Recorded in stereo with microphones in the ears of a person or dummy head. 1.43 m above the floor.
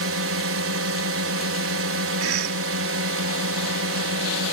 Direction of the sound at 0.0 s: 70° right (ahead or behind).